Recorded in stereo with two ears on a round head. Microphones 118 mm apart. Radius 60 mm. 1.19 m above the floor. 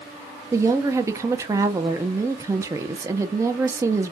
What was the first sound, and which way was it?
A woman speaking, 20° right (ahead or behind).